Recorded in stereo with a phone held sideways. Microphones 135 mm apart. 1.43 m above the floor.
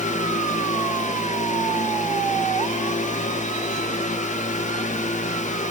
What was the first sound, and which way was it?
A fan, 65° left (ahead or behind).